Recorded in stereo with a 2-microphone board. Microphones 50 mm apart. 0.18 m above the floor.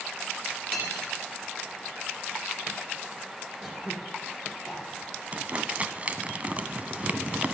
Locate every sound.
0.7 s cutlery clinking: 5° left (ahead or behind), 5.5 m
3.6 s throat clearing: 5° right (ahead or behind), 6 m
5.3 s crumpling: 30° right (ahead or behind), 1.0 m